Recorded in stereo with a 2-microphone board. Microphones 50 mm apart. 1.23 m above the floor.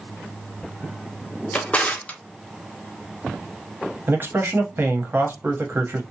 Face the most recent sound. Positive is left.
turn(degrees=-50)  # may be behind; listen again after turning